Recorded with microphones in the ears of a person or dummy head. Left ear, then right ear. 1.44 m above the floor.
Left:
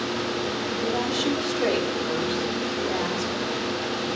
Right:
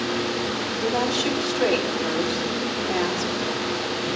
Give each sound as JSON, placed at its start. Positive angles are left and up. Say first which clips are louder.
{"t": 0.8, "sound": "a woman speaking", "louder": "right 3 dB", "side_deg": -70, "distance_m": 5.0}